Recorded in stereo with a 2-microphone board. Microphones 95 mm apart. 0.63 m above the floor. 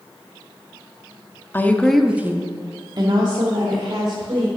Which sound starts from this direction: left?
A woman speaking, at 1.5 s.